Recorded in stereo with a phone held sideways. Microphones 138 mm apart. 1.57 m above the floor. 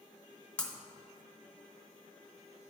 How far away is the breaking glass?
About 0.8 m.